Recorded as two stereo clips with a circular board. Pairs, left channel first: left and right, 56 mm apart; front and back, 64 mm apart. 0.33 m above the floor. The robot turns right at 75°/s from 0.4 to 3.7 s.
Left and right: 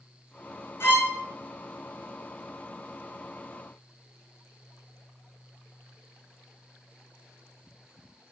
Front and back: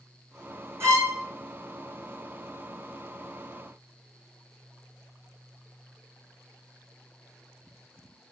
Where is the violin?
130° left, 3 m; by 1.2 s 155° left, 3 m.